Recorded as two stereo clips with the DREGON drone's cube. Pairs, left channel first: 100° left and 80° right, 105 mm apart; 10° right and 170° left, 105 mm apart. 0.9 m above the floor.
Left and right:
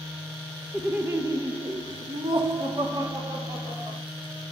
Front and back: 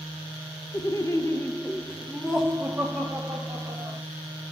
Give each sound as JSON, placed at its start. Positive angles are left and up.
{"t": 0.7, "sound": "laughter", "azimuth_deg": -10, "distance_m": 0.8}